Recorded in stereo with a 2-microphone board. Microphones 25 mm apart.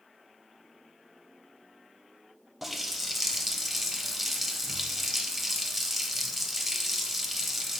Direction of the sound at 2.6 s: 5° right (ahead or behind).